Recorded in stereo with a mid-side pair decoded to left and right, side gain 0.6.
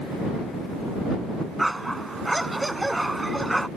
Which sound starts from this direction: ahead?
A dog barking, at 1.6 s.